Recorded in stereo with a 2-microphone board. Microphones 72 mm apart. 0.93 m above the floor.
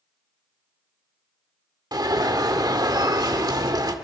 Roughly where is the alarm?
Right.